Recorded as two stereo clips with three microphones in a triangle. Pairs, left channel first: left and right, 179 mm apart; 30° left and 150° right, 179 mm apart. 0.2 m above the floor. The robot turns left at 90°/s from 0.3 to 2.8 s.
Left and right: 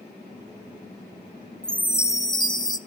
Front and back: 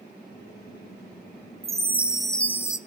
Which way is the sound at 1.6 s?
170° left.